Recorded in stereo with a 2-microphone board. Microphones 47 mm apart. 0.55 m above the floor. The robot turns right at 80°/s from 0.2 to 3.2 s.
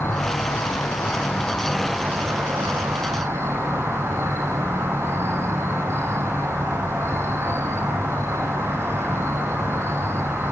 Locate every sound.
0.0 s an insect: 55° left, 4.5 m; by 10.5 s 65° right, 4.5 m